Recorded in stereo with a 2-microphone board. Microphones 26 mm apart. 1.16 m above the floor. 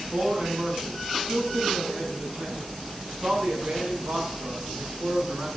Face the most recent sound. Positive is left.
turn(degrees=-70)  # may be behind; listen again after turning